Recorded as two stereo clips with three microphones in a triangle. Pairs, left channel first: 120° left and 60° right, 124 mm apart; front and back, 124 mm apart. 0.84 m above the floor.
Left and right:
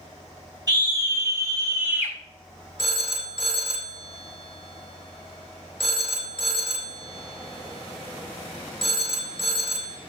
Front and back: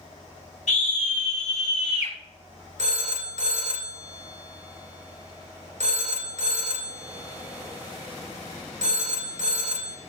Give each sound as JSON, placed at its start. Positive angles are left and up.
{"t": 0.7, "sound": "a scream", "azimuth_deg": -5, "distance_m": 3.0}
{"t": 2.8, "sound": "a phone ringing", "azimuth_deg": 160, "distance_m": 1.9}